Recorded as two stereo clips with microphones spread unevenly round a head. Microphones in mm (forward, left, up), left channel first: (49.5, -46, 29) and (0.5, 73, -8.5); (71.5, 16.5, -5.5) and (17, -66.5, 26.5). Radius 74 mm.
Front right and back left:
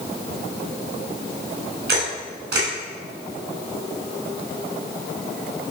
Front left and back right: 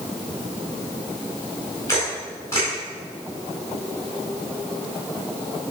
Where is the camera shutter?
135° left, 3.5 m.